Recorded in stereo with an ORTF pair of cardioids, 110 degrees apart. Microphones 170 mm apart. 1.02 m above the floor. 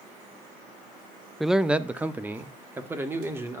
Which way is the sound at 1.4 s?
Straight ahead.